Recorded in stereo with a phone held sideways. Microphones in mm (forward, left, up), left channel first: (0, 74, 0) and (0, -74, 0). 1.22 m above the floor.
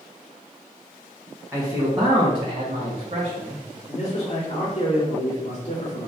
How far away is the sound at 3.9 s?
About 1.9 m.